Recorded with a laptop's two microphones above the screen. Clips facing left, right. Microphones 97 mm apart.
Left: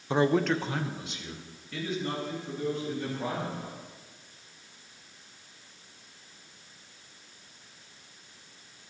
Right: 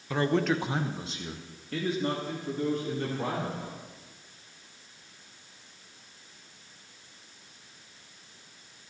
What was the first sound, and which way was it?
A man speaking, 25° left (ahead or behind).